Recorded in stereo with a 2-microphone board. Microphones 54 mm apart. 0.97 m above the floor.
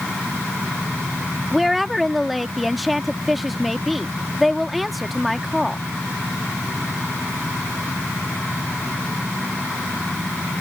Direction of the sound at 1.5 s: Centre (ahead or behind).